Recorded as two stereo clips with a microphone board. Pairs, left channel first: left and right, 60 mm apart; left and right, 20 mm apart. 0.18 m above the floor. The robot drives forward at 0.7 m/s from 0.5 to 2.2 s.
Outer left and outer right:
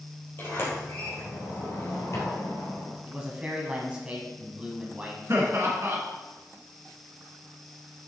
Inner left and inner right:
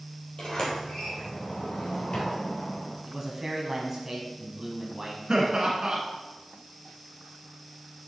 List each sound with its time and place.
0.4 s a sliding door: 40° left (ahead or behind), 3.5 m; by 3.0 s 50° left (ahead or behind), 3 m
3.1 s a man speaking: 20° right (ahead or behind), 1.1 m
5.3 s laughter: 45° right (ahead or behind), 1.6 m